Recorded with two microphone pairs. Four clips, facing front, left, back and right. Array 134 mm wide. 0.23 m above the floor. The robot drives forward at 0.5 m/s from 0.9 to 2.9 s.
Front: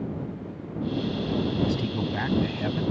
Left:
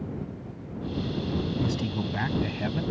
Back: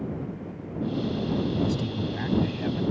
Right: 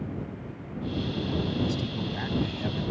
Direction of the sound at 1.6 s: 30° left.